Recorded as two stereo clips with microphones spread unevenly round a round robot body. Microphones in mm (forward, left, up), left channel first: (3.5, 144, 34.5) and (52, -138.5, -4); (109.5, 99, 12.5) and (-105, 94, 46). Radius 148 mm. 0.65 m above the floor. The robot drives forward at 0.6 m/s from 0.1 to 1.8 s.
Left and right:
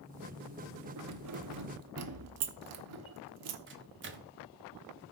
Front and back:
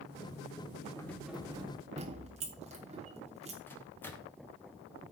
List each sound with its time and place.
1.0 s keys jangling: 75° right, 0.9 m; by 3.6 s 110° right, 0.9 m
3.7 s a microwave: 70° right, 0.9 m